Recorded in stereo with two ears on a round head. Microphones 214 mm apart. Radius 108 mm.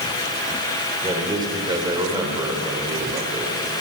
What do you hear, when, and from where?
1.0 s a man speaking: 15° right (ahead or behind), 3.5 m